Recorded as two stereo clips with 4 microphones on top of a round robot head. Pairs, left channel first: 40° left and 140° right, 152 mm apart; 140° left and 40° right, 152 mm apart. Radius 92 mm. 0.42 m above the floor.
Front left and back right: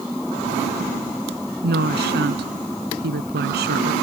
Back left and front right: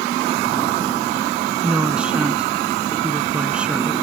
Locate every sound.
1.6 s a woman speaking: 125° right